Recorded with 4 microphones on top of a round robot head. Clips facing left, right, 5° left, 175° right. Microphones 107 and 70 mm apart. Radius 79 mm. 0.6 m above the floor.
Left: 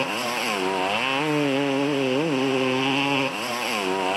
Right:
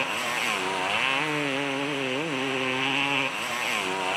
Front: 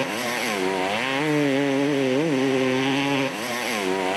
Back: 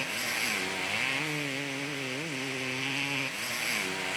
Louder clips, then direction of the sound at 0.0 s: Left 4 dB, front 9 dB; 30° left.